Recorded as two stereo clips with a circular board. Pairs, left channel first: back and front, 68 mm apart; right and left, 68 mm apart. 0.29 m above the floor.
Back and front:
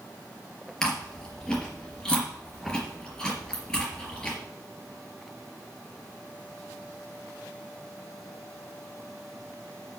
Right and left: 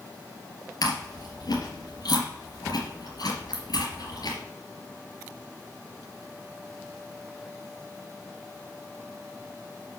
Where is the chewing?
100° right, 3.5 m.